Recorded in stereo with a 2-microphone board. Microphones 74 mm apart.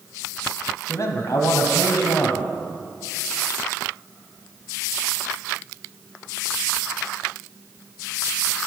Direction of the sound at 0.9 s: 45° left (ahead or behind).